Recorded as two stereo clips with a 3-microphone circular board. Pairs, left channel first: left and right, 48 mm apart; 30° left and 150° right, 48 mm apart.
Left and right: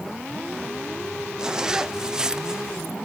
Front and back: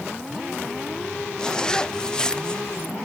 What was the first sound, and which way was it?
A zipper, 30° right.